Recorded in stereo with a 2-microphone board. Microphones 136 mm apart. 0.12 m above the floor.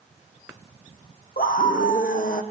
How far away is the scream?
About 4 m.